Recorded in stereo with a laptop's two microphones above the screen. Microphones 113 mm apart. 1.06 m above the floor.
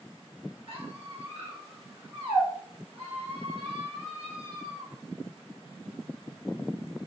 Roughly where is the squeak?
Right.